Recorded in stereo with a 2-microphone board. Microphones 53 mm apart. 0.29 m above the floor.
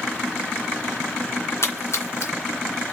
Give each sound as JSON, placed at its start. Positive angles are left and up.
{"t": 1.6, "sound": "a splash", "side_deg": 65, "distance_m": 2.5}